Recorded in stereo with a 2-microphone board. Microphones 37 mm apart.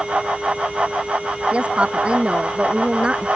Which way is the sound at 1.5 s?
30° right (ahead or behind).